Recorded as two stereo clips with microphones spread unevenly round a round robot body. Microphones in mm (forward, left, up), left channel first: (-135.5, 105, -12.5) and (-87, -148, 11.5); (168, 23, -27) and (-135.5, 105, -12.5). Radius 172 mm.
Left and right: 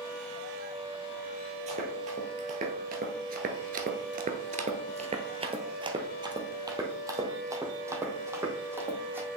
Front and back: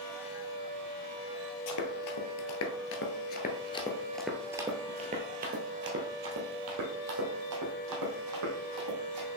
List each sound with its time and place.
1.7 s running footsteps: 20° right, 1.5 m; by 9.3 s 160° right, 3 m